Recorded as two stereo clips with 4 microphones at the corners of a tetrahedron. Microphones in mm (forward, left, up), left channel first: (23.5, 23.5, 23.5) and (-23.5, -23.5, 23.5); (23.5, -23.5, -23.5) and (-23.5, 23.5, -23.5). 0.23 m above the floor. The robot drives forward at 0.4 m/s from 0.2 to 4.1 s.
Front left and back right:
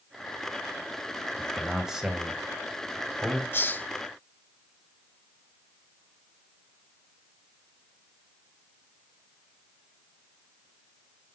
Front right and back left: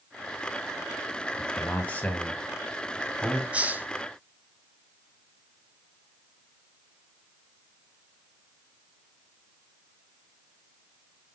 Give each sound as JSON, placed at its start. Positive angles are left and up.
{"t": 1.4, "sound": "a man speaking", "azimuth_deg": -50, "distance_m": 1.7}
{"t": 3.5, "sound": "a hiss", "azimuth_deg": 80, "distance_m": 0.5}